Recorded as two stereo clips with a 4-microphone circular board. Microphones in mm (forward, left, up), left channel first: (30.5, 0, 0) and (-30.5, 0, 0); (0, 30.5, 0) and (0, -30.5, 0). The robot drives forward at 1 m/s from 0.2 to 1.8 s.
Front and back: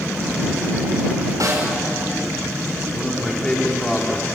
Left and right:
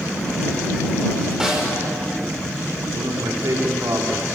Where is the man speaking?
80° right, 4 m.